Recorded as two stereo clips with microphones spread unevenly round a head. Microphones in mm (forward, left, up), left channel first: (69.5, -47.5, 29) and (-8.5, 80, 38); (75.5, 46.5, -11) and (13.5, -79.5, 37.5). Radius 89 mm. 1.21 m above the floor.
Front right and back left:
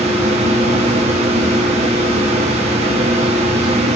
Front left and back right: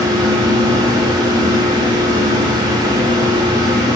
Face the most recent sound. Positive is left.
turn(degrees=170)